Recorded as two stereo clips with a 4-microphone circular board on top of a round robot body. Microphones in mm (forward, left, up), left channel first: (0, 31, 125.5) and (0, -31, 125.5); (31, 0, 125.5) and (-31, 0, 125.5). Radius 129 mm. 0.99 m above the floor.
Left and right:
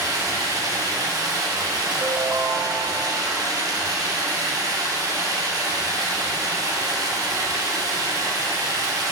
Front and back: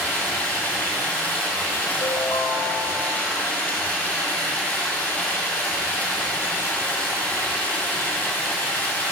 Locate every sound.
0.0 s running water: 65° right, 2.5 m
2.0 s a ringtone: 40° right, 0.7 m